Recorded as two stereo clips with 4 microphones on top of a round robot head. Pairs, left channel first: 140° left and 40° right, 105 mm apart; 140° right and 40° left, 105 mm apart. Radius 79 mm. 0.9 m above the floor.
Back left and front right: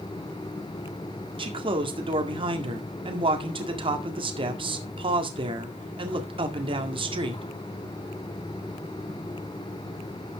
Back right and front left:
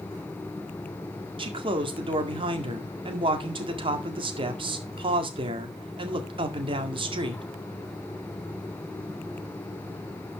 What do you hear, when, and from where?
1.4 s a man speaking: straight ahead, 2.0 m